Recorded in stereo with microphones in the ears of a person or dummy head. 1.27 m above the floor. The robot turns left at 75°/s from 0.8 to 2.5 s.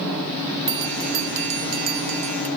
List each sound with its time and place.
0.7 s a bell: 20° right; by 2.5 s 145° right